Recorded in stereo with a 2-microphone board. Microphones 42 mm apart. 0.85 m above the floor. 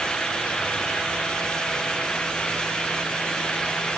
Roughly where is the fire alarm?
I don't hear a fire alarm.